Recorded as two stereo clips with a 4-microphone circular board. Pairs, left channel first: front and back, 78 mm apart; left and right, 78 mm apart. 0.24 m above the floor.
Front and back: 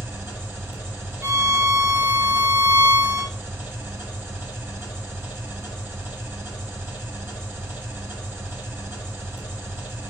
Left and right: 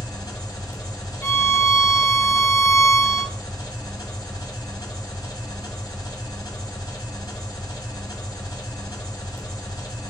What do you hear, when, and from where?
0.0 s an engine running: 120° left, 1.5 m
1.2 s a violin: 135° left, 0.6 m